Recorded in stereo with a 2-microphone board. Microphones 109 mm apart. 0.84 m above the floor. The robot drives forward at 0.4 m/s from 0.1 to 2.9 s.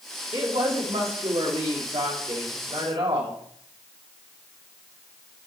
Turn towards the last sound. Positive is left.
turn(degrees=-60)  # may be behind; listen again after turning